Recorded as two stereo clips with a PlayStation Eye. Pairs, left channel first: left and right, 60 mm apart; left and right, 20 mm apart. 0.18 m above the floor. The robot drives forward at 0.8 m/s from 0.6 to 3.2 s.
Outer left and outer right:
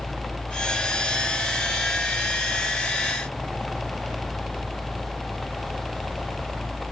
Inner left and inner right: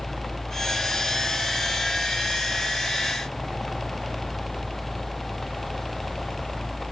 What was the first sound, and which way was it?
A helicopter, 5° left (ahead or behind).